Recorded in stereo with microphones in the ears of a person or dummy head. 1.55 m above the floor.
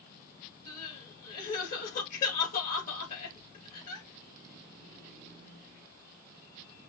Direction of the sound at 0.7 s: 50° left (ahead or behind).